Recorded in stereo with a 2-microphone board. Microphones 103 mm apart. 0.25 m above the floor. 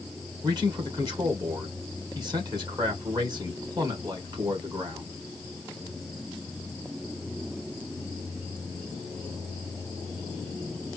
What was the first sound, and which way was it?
A man speaking, 40° right (ahead or behind).